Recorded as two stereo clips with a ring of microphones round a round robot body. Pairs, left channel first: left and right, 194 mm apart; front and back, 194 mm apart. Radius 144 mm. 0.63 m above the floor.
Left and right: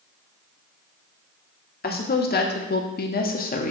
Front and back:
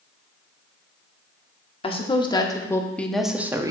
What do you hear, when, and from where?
1.8 s a woman speaking: 60° left, 1.5 m; by 3.7 s 115° left, 1.0 m